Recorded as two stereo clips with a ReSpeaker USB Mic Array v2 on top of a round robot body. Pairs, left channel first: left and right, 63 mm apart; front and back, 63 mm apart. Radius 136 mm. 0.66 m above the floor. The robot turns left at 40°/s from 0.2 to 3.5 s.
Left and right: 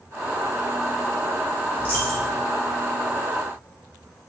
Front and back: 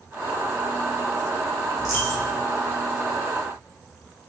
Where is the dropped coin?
155° left, 1.4 m; by 2.4 s 135° left, 1.4 m.